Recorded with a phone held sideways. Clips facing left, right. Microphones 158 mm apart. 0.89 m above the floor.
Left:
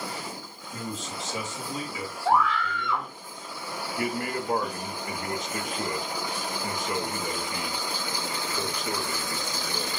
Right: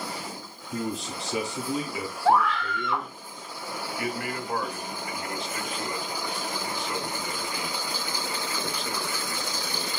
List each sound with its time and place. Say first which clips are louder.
0.7 s a man speaking: right 5 dB; 70° right (ahead or behind), 1.9 m
2.2 s a scream: right 2 dB; 80° right, 2 m
4.0 s a man speaking: left 3 dB; 45° left (ahead or behind), 1.1 m